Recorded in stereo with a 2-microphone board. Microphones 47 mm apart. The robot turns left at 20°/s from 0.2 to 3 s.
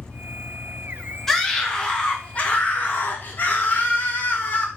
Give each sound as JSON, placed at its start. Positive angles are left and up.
{"t": 0.0, "sound": "an engine running", "azimuth_deg": 90, "distance_m": 1.0}
{"t": 1.3, "sound": "a scream", "azimuth_deg": 175, "distance_m": 0.9}